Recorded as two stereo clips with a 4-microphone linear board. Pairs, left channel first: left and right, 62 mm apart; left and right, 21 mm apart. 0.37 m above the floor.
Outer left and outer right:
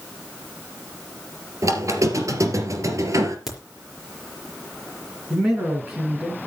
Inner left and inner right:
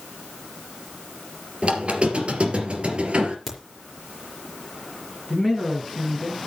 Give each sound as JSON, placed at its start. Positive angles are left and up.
{"t": 1.6, "sound": "a squeak", "side_deg": -50, "distance_m": 2.5}
{"t": 3.5, "sound": "a crack", "side_deg": -5, "distance_m": 5.0}
{"t": 5.3, "sound": "a man speaking", "side_deg": -20, "distance_m": 4.5}